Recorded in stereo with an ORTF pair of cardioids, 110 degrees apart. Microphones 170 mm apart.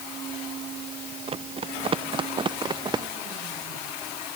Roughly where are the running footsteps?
Ahead right.